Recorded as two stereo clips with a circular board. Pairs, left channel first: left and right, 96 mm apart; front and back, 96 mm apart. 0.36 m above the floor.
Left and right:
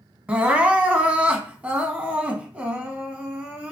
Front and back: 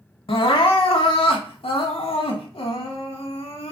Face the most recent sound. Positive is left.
turn(degrees=-15)